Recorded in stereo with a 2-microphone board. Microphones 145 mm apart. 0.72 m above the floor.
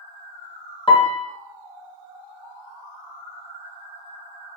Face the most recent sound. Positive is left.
turn(degrees=35)  # may be behind; listen again after turning